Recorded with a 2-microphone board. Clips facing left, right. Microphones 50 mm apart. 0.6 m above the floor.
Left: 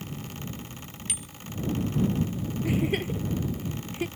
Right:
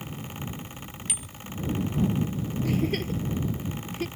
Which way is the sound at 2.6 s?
15° left (ahead or behind).